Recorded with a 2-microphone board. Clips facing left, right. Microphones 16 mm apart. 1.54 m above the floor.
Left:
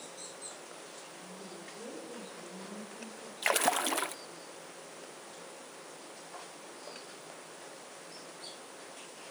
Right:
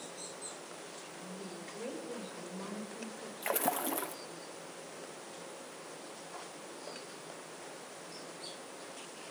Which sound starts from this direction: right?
A woman speaking, at 1.2 s.